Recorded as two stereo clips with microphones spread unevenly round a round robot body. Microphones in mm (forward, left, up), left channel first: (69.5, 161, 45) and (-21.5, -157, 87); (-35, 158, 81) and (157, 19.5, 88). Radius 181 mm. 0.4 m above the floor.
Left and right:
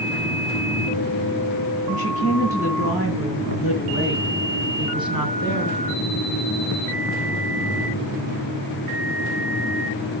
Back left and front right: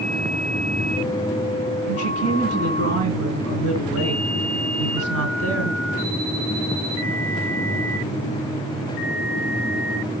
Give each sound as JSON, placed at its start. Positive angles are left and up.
{"t": 1.9, "sound": "a woman speaking", "azimuth_deg": -40, "distance_m": 9.0}